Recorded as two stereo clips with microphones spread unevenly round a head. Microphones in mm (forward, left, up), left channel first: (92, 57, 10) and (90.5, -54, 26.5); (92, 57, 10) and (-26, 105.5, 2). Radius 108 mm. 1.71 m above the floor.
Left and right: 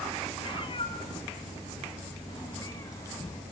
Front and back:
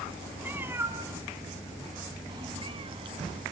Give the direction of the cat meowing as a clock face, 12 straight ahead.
9 o'clock.